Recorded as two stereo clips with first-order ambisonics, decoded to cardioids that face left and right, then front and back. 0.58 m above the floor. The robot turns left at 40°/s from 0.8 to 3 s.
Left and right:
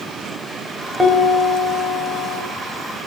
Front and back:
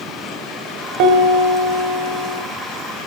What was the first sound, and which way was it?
A piano, 170° right.